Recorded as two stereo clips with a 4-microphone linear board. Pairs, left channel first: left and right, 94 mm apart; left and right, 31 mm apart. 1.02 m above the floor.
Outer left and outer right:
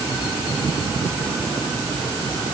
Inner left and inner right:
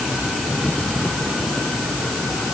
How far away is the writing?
No writing in this recording.